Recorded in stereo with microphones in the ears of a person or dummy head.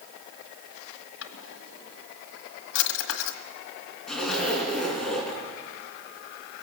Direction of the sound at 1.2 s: 65° left (ahead or behind).